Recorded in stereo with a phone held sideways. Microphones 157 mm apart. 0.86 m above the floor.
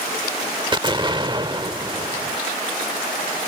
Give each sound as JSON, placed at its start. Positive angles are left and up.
{"t": 0.7, "sound": "an explosion", "side_deg": -30}